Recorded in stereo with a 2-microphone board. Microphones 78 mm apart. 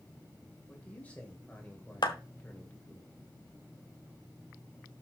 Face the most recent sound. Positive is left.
turn(degrees=65)  # may be behind; listen again after turning